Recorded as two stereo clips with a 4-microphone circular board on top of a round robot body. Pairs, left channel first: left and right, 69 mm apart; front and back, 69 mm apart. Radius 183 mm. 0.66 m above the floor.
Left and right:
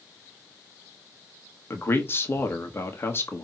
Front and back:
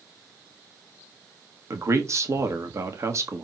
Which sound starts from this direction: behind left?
A man speaking, at 1.7 s.